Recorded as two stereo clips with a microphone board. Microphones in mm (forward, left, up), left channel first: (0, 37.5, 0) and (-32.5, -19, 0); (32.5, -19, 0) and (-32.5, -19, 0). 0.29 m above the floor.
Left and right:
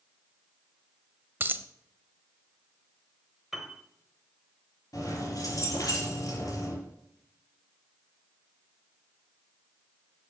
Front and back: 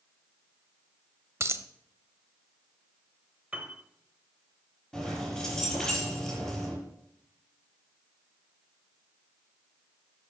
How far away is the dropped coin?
About 0.5 m.